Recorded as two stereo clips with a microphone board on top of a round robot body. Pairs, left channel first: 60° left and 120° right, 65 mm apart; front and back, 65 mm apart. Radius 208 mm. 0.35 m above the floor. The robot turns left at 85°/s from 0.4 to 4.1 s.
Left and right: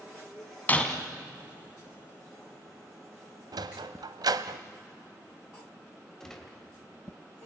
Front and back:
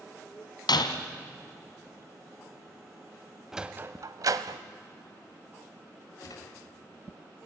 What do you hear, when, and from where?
0.7 s breaking glass: 5° right, 1.6 m; by 0.9 s 30° right, 1.6 m
3.5 s a sliding door: 95° right, 0.5 m; by 4.6 s 145° right, 0.5 m
6.2 s a gunshot: 25° right, 3 m